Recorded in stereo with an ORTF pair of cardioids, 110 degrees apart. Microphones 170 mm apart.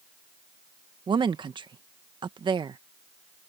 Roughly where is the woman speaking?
Ahead right.